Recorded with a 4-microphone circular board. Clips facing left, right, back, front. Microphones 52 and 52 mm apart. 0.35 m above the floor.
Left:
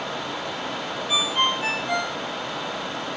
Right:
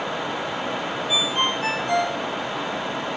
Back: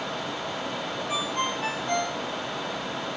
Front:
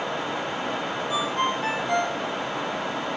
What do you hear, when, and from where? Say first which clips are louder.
1.1 s a ringtone: left 1 dB, front 4 dB; 170° left, 4.5 m